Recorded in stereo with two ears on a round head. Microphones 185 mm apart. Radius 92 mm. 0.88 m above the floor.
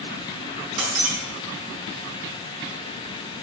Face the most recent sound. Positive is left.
turn(degrees=-85)